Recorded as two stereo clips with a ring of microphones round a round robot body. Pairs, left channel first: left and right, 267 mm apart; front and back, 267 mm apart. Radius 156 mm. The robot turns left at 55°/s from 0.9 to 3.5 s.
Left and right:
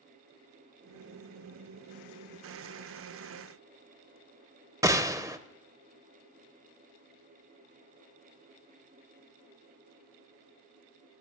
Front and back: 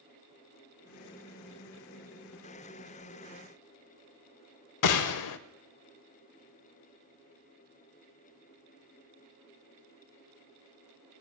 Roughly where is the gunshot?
Ahead.